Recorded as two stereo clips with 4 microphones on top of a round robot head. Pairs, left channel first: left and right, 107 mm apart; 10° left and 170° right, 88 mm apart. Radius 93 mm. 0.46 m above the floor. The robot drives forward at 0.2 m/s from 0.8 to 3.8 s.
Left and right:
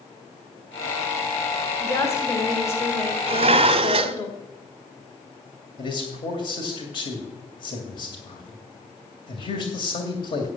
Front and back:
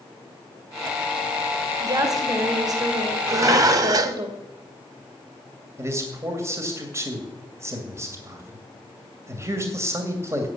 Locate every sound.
1.8 s a woman speaking: 150° left, 1.9 m; by 4.3 s 155° left, 2 m
3.3 s dishes clattering: 115° right, 0.9 m; by 4.2 s 125° right, 1.0 m
5.8 s a man speaking: 135° left, 2.5 m